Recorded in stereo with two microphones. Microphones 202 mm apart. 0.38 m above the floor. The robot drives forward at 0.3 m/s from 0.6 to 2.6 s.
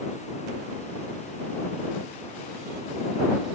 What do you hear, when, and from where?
Only background noise.